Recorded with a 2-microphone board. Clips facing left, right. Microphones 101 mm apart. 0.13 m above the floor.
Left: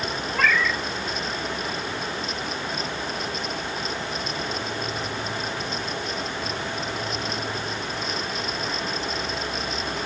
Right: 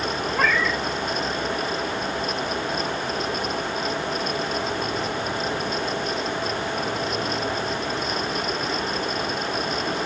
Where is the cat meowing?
15° right (ahead or behind), 1.7 m.